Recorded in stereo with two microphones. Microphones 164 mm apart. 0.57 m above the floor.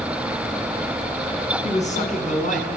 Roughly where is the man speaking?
Left.